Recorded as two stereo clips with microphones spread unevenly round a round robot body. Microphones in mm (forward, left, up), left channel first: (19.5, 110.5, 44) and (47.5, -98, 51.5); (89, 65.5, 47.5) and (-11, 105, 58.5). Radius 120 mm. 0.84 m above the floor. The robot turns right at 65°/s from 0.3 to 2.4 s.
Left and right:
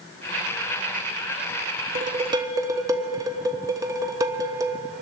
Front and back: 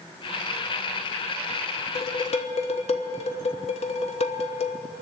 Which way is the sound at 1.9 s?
35° right.